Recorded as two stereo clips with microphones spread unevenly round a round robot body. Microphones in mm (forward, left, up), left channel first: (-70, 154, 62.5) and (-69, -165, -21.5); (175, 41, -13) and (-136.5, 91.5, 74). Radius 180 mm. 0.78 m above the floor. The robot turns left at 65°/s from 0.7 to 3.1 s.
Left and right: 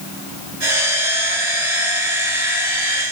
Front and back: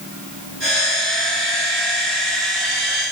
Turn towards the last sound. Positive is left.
No sound to turn to.